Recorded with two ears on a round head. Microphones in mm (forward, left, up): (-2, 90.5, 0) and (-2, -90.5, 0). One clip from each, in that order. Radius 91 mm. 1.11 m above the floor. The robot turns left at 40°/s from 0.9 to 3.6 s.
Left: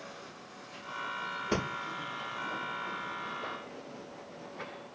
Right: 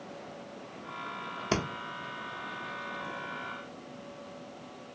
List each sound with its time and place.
1.5 s breathing: 35° right (ahead or behind), 0.7 m